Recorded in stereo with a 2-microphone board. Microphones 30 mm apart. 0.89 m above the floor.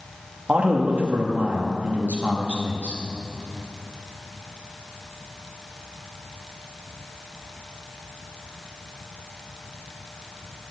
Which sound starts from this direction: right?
A man speaking, at 0.5 s.